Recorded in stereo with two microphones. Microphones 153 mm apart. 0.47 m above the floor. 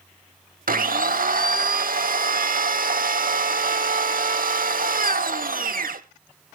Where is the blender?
70° right (ahead or behind), 0.7 m.